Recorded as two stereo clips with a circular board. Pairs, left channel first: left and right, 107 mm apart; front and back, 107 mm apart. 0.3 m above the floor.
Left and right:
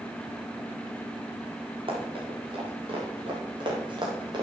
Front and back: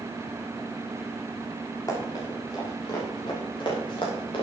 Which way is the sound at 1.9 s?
55° right.